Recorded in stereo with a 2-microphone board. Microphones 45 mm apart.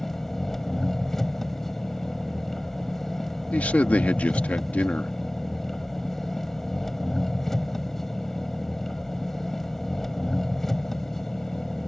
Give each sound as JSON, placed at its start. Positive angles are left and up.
{"t": 0.0, "sound": "an engine running", "side_deg": 10}
{"t": 3.5, "sound": "a man speaking", "side_deg": 35}